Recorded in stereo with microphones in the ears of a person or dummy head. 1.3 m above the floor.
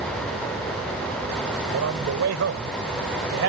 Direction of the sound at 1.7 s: 75° right (ahead or behind).